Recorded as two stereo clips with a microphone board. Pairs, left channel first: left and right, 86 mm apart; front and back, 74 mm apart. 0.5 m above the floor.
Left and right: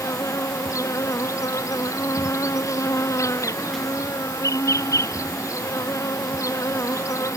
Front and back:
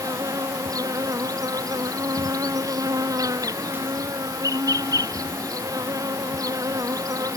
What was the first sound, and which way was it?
An insect, 145° left.